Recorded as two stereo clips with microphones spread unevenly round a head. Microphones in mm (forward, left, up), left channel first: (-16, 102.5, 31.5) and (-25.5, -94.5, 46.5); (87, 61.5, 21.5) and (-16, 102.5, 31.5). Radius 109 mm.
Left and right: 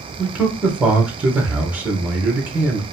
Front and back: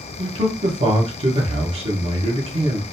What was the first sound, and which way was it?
A man speaking, straight behind.